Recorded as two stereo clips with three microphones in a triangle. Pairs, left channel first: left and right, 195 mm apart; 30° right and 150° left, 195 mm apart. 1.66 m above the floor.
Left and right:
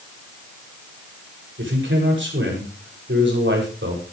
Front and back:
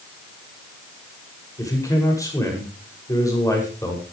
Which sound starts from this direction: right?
A man speaking, at 1.6 s.